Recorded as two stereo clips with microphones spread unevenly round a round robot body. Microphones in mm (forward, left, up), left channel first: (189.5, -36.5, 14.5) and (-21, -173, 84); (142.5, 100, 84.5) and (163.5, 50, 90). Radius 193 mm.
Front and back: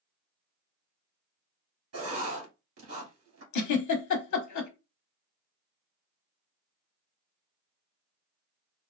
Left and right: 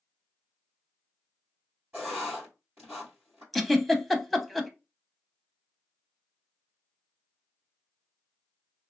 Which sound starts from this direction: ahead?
A giggle, at 3.5 s.